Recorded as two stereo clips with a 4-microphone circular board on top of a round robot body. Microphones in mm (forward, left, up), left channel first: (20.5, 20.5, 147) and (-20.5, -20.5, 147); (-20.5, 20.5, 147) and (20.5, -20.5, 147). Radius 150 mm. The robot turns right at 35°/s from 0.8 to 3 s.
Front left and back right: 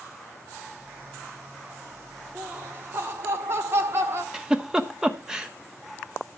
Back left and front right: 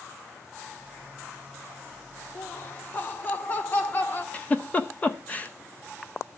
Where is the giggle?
160° left, 1.5 m.